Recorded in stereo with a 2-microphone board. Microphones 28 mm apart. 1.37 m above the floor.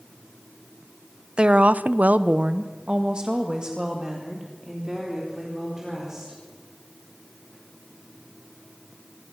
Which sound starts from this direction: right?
A woman speaking, at 1.4 s.